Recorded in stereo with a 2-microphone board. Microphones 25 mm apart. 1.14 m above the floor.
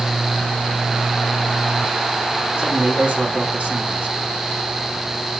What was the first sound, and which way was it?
A man speaking, 75° right (ahead or behind).